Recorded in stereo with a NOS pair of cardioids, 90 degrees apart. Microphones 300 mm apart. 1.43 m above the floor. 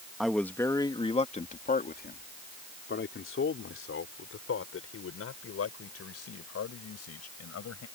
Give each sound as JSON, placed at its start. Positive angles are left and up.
{"t": 0.2, "sound": "a man speaking", "azimuth_deg": 0}